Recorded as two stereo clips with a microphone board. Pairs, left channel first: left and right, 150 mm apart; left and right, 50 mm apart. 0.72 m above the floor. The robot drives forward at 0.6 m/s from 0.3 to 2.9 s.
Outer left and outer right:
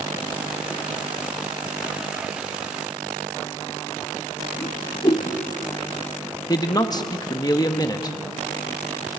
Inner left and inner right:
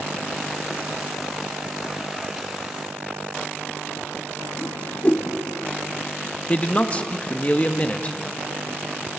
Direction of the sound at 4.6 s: 40° left (ahead or behind).